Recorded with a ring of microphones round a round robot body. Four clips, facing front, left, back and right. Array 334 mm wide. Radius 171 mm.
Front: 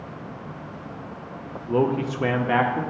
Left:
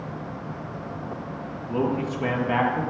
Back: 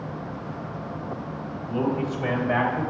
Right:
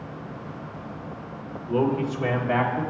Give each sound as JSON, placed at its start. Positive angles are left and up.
{"t": 1.7, "sound": "a man speaking", "azimuth_deg": -15, "distance_m": 1.0}